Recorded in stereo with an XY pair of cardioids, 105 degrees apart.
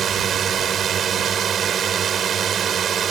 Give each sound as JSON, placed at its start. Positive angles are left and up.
{"t": 0.0, "sound": "a drone", "azimuth_deg": -55}